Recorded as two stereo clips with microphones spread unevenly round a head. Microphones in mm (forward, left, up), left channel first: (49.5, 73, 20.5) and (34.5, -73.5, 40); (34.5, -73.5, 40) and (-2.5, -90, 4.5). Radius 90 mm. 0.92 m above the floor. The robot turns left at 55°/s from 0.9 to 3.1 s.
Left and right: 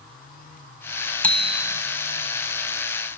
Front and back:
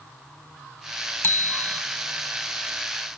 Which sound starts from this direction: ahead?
A bicycle bell, at 1.2 s.